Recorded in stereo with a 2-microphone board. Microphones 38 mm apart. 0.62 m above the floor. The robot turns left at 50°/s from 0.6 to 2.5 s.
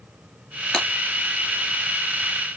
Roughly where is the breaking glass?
Centre.